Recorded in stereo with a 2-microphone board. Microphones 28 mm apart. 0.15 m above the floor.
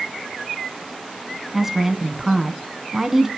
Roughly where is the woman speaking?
Centre.